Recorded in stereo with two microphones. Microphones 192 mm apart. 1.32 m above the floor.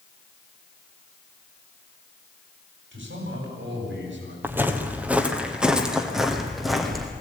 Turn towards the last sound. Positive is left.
turn(degrees=0)  # may be behind; listen again after turning